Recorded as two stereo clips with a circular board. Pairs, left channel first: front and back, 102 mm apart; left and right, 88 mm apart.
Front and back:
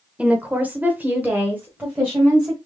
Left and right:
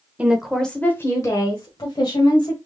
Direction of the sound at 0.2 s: 125° right.